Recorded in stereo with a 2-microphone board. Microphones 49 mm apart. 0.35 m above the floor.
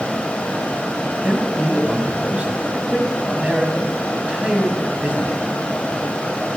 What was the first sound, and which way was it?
A man speaking, 20° right (ahead or behind).